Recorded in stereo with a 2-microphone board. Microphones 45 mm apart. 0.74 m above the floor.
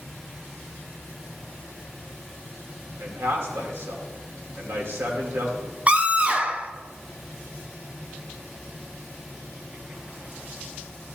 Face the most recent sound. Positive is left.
turn(degrees=-30)  # may be behind; listen again after turning